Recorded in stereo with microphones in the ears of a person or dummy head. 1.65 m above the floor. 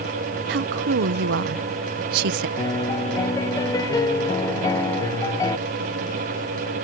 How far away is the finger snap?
No finger snap in this recording.